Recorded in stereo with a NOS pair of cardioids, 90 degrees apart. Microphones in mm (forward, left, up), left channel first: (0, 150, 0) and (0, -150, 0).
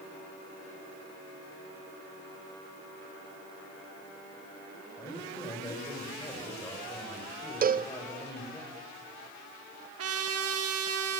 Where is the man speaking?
15° left, 7.5 m.